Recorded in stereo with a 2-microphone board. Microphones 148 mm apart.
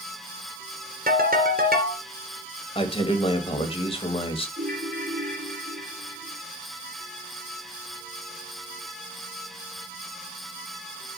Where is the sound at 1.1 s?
85° right, 3 m.